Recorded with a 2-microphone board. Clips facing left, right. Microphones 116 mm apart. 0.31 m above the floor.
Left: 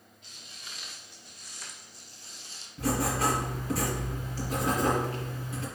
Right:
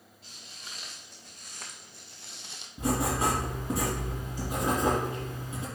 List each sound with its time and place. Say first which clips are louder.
0.2 s footsteps: right 1 dB; 35° right (ahead or behind), 2.5 m; by 2.7 s 65° right (ahead or behind), 0.8 m
2.8 s writing: even; 15° right (ahead or behind), 3.5 m